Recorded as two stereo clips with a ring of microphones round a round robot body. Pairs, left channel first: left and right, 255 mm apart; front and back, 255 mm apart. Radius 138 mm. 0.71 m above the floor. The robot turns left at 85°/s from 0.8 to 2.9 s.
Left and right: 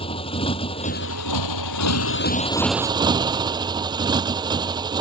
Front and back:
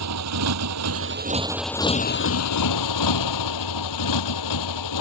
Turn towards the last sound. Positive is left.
turn(degrees=-15)